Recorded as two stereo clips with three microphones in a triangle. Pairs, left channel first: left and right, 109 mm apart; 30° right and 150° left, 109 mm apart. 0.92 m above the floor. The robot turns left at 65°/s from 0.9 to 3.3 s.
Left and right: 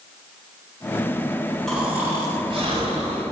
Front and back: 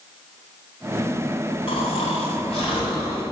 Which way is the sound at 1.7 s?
5° left.